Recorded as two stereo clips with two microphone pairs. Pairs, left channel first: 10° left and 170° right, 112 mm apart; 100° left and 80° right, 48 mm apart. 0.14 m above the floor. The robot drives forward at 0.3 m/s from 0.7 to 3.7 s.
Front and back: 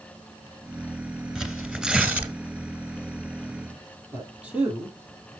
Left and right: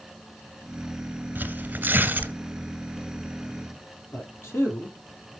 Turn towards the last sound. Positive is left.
turn(degrees=115)